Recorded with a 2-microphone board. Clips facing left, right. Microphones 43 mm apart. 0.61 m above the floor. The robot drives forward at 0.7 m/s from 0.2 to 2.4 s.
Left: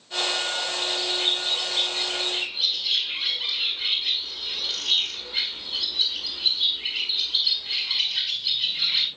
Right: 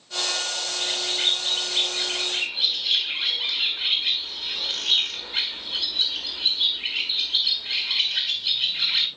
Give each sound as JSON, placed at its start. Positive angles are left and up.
{"t": 0.8, "sound": "a bird", "side_deg": -55, "distance_m": 4.0}